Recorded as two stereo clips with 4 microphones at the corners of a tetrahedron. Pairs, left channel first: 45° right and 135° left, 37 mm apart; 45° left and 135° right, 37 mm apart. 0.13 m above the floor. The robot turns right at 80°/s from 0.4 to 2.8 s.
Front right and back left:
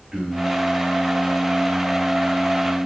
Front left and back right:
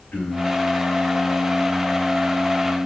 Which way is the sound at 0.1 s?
65° left.